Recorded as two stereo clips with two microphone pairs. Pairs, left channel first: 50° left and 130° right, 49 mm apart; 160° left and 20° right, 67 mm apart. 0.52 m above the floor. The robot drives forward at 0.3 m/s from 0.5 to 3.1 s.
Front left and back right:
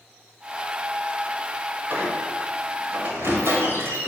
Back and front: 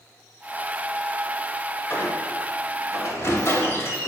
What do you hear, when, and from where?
1.9 s a squeak: 150° right, 1.6 m; by 4.1 s 155° right, 1.9 m